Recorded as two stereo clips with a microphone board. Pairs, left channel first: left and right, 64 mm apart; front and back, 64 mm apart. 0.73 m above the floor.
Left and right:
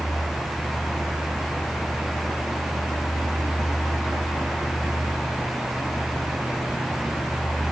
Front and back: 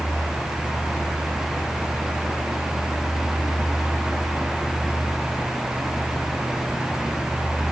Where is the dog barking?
No dog barking in this recording.